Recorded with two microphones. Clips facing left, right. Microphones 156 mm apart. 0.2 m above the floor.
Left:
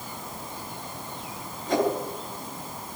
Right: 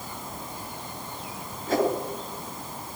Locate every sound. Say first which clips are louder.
1.7 s a whoosh: even; 5° right (ahead or behind), 3 m